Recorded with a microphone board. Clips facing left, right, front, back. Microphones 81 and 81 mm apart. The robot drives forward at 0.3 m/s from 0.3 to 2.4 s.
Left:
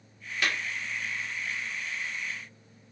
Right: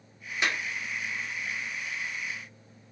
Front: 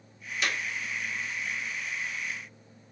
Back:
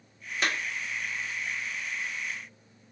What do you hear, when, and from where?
0.4 s a clap: 150° right, 0.8 m; by 0.6 s 155° right, 0.8 m